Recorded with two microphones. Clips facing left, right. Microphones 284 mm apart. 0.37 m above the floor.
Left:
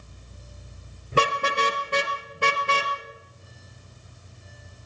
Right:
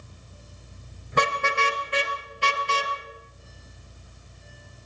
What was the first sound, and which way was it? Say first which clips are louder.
A car horn: left 2 dB; 35° left (ahead or behind).